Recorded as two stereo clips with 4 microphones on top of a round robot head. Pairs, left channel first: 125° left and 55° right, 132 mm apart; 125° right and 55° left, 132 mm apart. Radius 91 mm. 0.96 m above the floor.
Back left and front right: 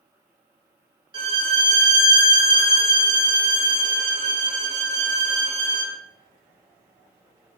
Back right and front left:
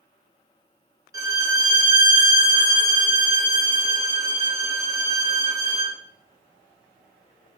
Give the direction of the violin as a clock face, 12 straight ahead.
12 o'clock.